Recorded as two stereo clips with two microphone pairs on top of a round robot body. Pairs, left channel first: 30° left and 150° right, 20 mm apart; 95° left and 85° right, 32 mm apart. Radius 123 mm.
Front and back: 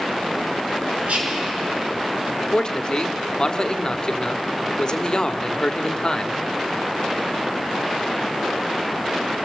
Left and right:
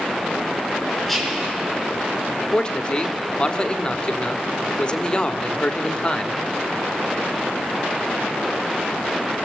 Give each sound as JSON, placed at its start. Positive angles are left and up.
{"t": 1.1, "sound": "whispering", "azimuth_deg": 180, "distance_m": 8.0}
{"t": 2.5, "sound": "a man speaking", "azimuth_deg": 65, "distance_m": 1.7}